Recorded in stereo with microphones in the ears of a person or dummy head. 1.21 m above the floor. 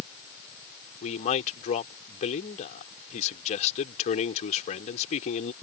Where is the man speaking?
45° left (ahead or behind).